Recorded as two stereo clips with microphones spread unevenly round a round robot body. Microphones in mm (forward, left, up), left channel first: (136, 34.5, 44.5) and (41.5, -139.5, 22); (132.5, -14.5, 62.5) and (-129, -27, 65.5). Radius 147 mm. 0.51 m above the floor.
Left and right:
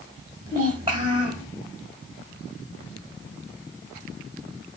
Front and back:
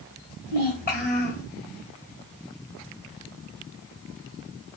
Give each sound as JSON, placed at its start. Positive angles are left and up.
{"t": 0.5, "sound": "a child speaking", "azimuth_deg": -55, "distance_m": 2.0}